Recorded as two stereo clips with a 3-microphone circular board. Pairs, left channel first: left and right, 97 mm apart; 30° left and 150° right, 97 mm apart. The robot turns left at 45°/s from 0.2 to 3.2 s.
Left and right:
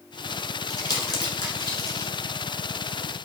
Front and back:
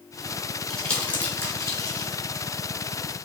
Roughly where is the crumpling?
Behind left.